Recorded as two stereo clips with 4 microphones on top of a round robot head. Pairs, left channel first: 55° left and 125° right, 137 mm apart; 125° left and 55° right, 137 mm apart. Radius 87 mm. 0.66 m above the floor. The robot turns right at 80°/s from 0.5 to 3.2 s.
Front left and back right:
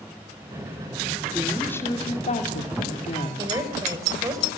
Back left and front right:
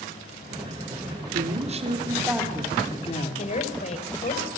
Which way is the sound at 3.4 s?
165° left.